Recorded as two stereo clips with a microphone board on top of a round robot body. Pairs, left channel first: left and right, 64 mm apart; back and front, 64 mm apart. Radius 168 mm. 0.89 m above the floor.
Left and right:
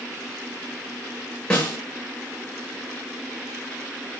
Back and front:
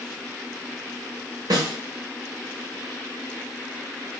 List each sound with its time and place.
1.5 s a snare drum: 15° left, 1.0 m